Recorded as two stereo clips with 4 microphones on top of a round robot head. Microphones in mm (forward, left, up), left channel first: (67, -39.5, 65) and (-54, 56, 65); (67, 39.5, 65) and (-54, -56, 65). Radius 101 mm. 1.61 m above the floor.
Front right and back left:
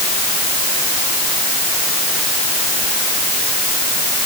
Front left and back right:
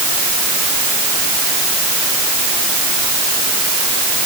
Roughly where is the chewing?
I don't hear chewing.